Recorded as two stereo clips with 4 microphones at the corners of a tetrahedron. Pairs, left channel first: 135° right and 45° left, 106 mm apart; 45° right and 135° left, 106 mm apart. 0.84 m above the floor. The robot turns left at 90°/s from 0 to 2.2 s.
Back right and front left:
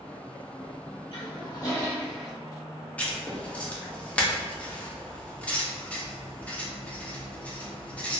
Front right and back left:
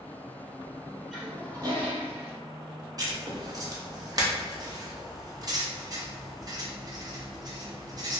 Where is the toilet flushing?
135° right, 0.7 m; by 2.3 s 130° left, 0.7 m.